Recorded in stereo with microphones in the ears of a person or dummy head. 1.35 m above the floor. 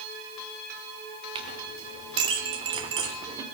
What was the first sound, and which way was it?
A clink, 30° right (ahead or behind).